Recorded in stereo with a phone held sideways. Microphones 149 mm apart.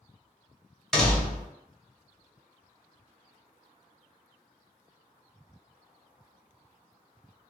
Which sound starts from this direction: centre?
A door slam, at 0.9 s.